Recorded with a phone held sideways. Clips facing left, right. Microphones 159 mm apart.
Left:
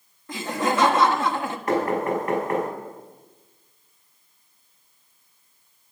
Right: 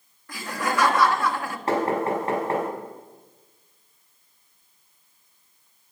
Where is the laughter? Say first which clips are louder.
Left 3 dB; 20° left (ahead or behind), 1.3 m.